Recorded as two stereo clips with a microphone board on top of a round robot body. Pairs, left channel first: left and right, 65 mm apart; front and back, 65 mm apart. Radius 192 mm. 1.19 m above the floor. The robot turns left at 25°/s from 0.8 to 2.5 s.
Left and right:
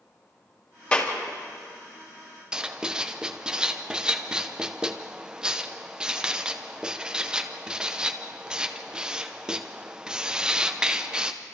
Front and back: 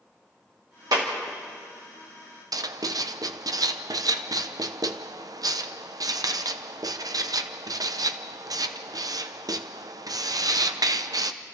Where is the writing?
165° right, 0.9 m.